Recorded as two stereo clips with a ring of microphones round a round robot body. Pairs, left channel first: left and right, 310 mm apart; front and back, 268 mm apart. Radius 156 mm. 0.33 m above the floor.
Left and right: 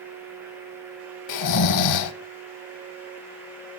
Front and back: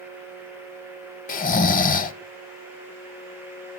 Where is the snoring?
60° left, 0.7 m.